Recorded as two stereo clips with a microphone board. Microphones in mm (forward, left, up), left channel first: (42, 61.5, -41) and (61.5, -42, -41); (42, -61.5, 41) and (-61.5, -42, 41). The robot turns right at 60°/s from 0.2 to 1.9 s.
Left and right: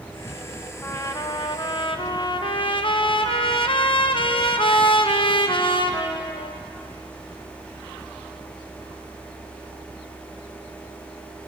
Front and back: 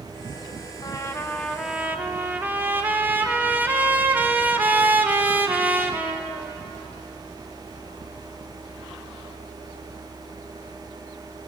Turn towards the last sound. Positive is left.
turn(degrees=100)